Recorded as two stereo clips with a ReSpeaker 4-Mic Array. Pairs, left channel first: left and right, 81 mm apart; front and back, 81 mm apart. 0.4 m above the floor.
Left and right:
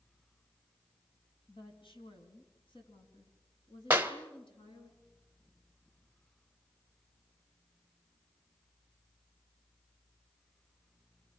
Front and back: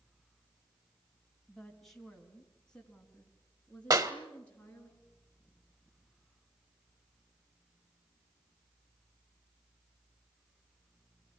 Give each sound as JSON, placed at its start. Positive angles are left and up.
{"t": 1.5, "sound": "a woman speaking", "azimuth_deg": 85, "distance_m": 3.5}
{"t": 3.9, "sound": "a clap", "azimuth_deg": -150, "distance_m": 1.6}